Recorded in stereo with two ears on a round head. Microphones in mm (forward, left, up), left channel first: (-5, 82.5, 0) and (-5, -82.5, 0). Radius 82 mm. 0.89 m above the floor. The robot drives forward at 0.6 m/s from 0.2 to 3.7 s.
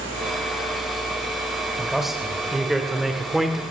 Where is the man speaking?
Centre (ahead or behind), 3 m.